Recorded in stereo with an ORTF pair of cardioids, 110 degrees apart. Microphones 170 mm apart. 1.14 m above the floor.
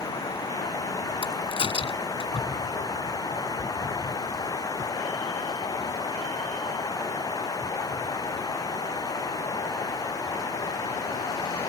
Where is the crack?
35° left.